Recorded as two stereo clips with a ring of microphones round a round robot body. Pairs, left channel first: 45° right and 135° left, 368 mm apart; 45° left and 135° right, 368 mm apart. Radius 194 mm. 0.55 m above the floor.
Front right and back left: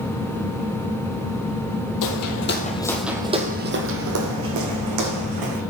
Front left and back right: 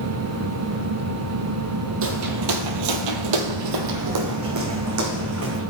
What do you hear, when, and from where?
2.0 s footsteps: 80° right, 1.0 m; by 5.6 s 170° left, 2.5 m